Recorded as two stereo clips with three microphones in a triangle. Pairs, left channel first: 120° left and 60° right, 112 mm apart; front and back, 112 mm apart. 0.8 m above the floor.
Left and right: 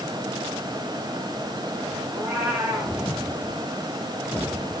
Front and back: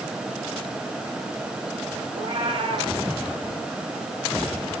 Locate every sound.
2.1 s a cat meowing: 140° right, 4.5 m